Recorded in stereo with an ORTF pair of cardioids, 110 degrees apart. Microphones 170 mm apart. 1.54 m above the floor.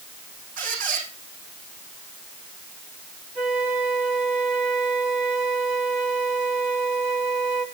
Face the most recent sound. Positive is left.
turn(degrees=-55)